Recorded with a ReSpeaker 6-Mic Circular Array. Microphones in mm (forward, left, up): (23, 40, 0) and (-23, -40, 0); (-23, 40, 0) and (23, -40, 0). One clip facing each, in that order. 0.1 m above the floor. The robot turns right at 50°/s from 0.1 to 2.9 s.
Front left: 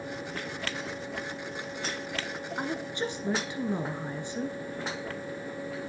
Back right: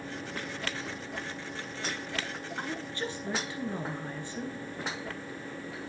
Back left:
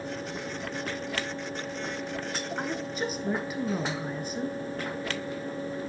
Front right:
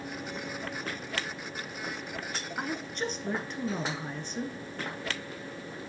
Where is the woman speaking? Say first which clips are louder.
Front left 4 dB, back left 1 dB; 30° left, 1.2 m; by 4.6 s 50° left, 1.2 m.